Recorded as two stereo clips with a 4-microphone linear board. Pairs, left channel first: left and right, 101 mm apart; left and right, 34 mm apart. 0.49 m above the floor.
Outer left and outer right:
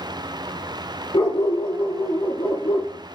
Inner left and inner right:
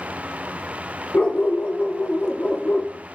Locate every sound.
1.1 s a dog barking: 75° left (ahead or behind), 4 m